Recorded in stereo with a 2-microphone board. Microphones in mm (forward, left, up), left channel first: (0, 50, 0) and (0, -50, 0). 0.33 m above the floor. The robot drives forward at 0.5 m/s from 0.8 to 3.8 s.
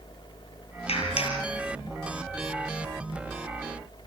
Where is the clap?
80° left, 5.5 m; by 1.4 s 75° left (ahead or behind), 5.5 m.